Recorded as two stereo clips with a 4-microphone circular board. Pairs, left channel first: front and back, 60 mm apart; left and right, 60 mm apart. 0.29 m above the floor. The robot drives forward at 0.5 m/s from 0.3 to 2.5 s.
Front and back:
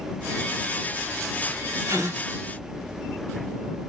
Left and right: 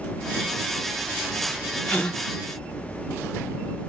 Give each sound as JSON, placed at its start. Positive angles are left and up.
{"t": 1.9, "sound": "a gasp", "azimuth_deg": 160, "distance_m": 0.9}